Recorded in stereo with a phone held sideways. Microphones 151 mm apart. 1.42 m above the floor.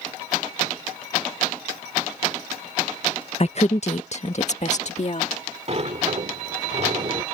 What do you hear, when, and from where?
3.4 s a woman speaking: 45° left (ahead or behind); by 5.3 s 50° left (ahead or behind)
5.7 s a sliding door: 45° right (ahead or behind)